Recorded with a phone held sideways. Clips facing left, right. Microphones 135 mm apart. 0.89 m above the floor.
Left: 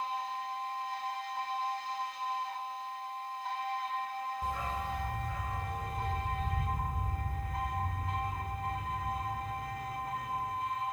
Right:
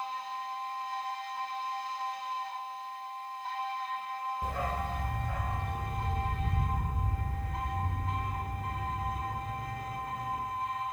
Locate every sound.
4.4 s a dog barking: 60° right (ahead or behind), 1.3 m; by 10.4 s 85° right, 6.5 m